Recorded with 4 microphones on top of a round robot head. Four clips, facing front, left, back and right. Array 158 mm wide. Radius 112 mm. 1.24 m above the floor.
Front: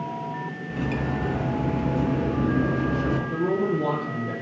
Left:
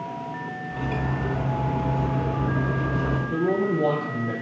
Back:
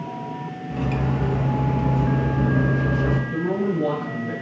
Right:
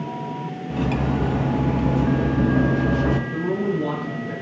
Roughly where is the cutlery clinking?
Right.